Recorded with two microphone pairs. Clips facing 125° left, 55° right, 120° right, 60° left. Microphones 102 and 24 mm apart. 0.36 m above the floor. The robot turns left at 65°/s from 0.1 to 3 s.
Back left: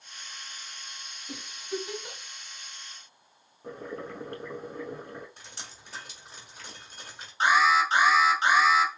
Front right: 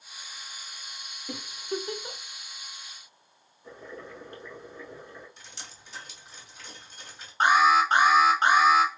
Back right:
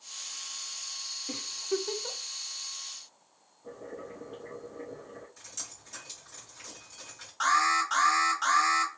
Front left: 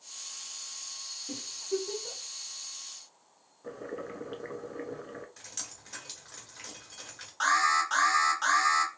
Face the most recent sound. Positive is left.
turn(degrees=-25)